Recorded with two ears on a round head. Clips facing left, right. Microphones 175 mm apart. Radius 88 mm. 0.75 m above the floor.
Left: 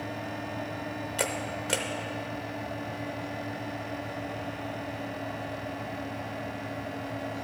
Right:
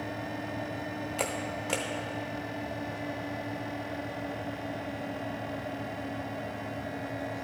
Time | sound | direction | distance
1.2 | a camera shutter | 10° left (ahead or behind) | 0.6 m